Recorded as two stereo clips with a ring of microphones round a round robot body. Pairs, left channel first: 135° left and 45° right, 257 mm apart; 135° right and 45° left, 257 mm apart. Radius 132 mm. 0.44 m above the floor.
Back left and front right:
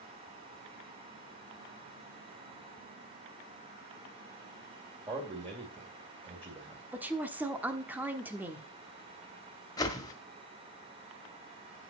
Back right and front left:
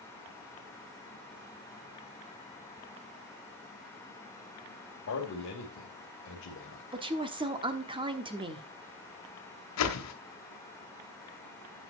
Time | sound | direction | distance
5.1 | a man speaking | 110° right | 2.5 m
6.9 | a woman speaking | 25° left | 1.2 m
9.8 | a whoosh | 150° right | 1.5 m